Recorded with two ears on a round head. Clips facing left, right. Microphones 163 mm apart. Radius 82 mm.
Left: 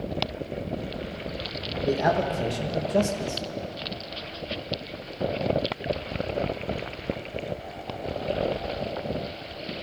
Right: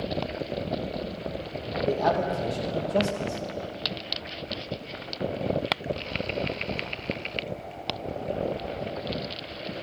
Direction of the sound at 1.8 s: 15° left (ahead or behind).